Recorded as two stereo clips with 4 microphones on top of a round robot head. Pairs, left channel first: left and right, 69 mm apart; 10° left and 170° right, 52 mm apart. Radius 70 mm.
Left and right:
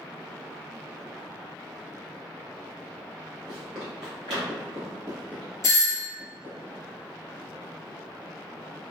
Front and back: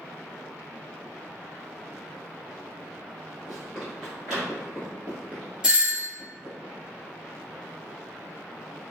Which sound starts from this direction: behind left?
A doorbell, at 5.6 s.